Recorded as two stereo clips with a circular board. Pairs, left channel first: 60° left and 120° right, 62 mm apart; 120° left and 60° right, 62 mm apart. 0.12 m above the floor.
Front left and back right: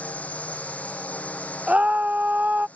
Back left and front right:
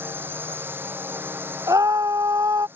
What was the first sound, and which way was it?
A drone, 5° right.